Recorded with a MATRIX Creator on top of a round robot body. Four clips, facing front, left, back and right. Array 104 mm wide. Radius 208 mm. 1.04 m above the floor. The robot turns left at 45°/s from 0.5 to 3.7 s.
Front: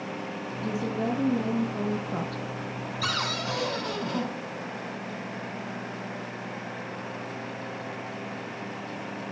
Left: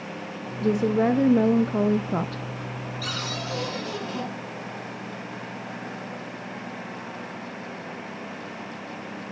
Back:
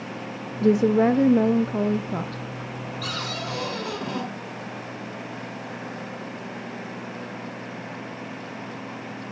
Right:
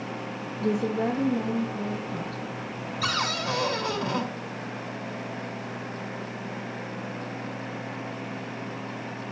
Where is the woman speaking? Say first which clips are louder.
Left 4 dB, back 12 dB; 170° left, 0.5 m; by 2.4 s 90° left, 0.5 m.